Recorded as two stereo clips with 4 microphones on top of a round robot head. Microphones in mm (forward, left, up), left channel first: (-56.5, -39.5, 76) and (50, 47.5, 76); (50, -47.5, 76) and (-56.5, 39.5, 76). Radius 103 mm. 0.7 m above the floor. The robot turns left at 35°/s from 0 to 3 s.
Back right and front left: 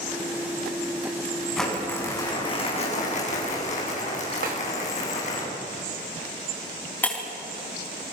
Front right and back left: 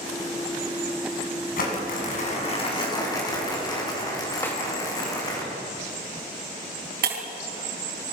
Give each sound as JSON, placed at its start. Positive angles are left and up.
{"t": 1.6, "sound": "crumpling", "azimuth_deg": -55, "distance_m": 7.0}
{"t": 4.4, "sound": "a snare drum", "azimuth_deg": 35, "distance_m": 4.5}
{"t": 7.0, "sound": "breaking glass", "azimuth_deg": 140, "distance_m": 5.0}